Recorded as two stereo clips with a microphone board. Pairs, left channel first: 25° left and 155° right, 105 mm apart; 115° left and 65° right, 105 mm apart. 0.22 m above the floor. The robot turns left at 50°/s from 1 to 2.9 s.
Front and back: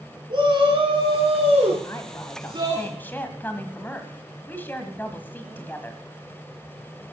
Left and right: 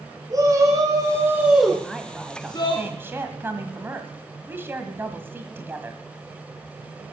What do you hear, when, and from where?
0.3 s a shout: 120° right, 2.5 m; by 2.8 s 150° left, 2.5 m
1.8 s a woman speaking: 25° left, 1.6 m; by 6.0 s 25° right, 1.6 m